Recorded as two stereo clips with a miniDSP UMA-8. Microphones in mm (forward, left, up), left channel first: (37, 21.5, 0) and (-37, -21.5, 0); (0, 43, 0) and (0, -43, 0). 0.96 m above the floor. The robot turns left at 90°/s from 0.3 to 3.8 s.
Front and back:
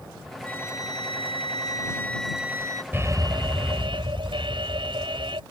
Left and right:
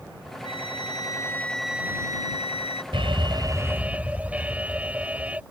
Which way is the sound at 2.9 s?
85° right.